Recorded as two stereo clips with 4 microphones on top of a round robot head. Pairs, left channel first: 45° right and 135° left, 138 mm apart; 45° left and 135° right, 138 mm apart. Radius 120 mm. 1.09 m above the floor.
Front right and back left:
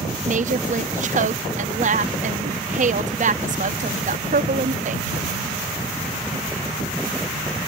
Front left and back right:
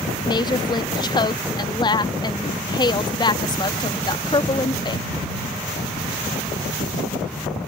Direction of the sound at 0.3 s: 105° left.